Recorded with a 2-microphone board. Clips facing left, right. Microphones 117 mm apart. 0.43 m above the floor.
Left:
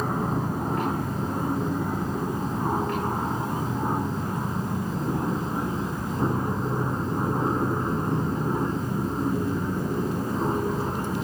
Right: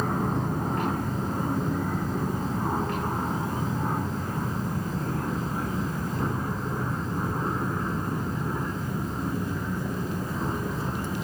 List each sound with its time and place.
0.0 s an aircraft: 5° left (ahead or behind); by 11.2 s 30° left (ahead or behind)